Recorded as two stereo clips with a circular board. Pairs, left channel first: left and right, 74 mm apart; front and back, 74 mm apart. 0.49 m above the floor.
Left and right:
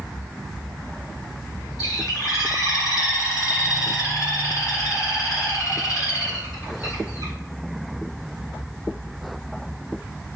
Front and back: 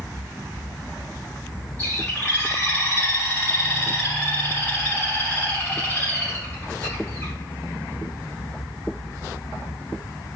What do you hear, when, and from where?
1.8 s a bird: 60° left, 2 m